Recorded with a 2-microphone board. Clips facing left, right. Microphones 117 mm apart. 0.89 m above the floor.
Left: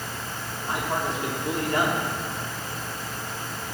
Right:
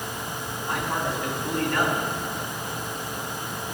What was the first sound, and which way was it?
A man speaking, 20° left (ahead or behind).